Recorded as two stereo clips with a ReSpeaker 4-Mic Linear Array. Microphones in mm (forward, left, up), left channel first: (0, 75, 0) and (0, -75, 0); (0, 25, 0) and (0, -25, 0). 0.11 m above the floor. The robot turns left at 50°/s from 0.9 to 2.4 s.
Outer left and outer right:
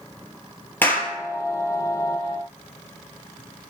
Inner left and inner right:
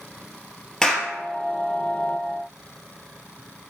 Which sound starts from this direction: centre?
A clap, at 0.8 s.